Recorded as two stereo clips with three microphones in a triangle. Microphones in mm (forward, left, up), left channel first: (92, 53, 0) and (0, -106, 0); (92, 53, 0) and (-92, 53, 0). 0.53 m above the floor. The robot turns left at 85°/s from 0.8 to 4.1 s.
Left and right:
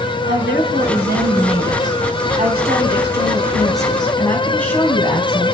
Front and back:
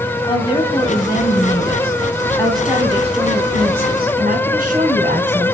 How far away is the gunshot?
I don't hear a gunshot.